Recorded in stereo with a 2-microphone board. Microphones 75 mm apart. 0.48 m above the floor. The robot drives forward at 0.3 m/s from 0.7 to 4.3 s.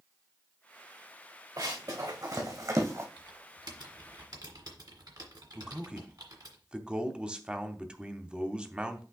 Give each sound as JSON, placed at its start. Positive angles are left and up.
{"t": 1.6, "sound": "running footsteps", "side_deg": -60, "distance_m": 2.5}
{"t": 3.2, "sound": "typing on a keyboard", "side_deg": -75, "distance_m": 1.7}
{"t": 5.5, "sound": "a man speaking", "side_deg": -15, "distance_m": 0.7}